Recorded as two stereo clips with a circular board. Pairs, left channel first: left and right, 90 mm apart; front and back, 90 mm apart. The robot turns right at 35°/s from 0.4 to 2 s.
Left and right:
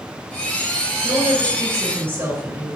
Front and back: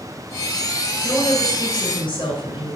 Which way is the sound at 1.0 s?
60° right.